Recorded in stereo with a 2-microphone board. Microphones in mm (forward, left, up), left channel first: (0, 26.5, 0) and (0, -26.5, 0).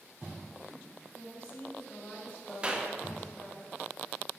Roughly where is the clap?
Right.